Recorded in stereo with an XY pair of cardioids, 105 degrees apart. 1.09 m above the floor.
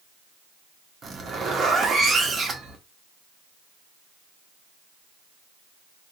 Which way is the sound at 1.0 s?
40° right.